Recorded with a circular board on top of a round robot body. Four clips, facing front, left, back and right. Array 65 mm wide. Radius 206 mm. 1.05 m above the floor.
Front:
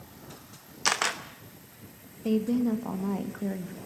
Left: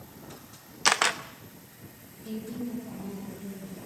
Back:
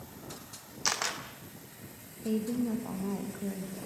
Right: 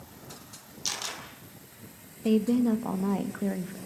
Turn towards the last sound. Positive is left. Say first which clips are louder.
# right 12 dB, front 5 dB
turn(degrees=-70)